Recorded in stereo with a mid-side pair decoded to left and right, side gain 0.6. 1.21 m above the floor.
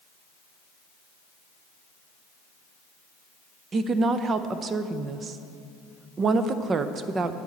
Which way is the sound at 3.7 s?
35° right.